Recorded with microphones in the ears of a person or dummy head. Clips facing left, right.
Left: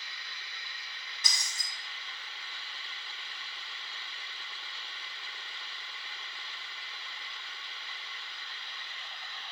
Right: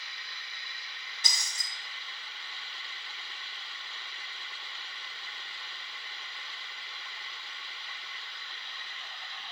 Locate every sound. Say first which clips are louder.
1.2 s breaking glass: right 1 dB; 35° right (ahead or behind), 2.5 m